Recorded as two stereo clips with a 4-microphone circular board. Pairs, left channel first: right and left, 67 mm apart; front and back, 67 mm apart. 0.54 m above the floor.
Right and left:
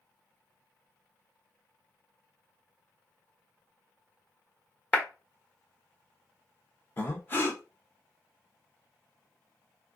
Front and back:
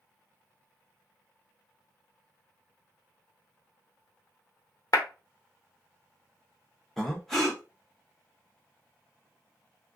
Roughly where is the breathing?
Right.